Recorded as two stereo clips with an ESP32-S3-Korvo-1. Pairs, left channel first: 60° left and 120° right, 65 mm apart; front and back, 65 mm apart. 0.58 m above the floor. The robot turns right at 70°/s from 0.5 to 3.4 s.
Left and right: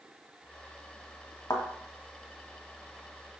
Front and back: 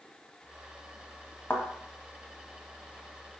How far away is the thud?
About 1.4 m.